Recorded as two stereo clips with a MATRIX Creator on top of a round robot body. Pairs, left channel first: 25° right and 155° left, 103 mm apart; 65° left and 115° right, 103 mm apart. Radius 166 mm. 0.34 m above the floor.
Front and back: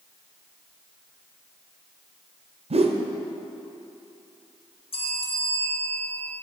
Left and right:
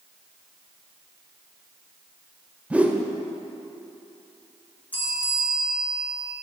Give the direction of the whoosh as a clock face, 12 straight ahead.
6 o'clock.